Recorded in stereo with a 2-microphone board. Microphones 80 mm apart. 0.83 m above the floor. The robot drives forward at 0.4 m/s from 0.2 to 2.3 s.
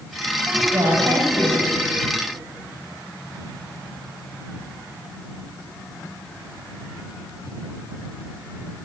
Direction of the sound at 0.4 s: 35° right (ahead or behind).